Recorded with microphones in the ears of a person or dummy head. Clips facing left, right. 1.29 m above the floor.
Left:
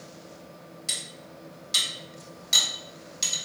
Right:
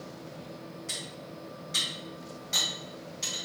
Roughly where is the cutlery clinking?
Left.